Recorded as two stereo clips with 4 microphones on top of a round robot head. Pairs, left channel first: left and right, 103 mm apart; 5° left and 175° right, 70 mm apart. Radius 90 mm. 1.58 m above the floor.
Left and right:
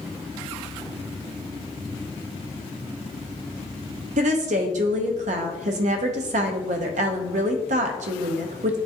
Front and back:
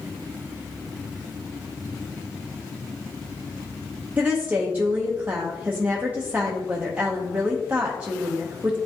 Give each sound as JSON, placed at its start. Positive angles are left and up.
{"t": 4.2, "sound": "a woman speaking", "azimuth_deg": -100, "distance_m": 0.6}